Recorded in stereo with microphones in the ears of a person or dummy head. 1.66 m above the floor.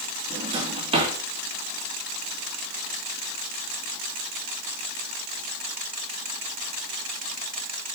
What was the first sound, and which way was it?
A drawer, 30° right (ahead or behind).